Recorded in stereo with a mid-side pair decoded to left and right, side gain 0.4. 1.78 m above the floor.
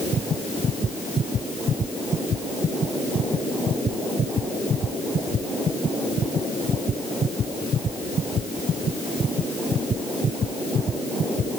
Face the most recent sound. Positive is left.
No sound to turn to.